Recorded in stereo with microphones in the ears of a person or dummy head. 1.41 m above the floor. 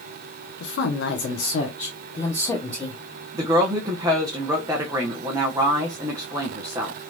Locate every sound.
0.6 s a woman speaking: 80° left, 1.0 m; by 3.0 s centre (ahead or behind), 1.1 m
3.3 s a woman speaking: 20° right (ahead or behind), 0.7 m